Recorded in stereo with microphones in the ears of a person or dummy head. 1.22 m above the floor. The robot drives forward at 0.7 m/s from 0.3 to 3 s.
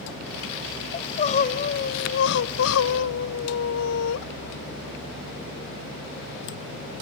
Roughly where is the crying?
Left.